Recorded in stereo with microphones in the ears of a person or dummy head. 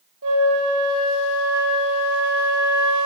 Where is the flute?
70° right (ahead or behind), 1.8 m.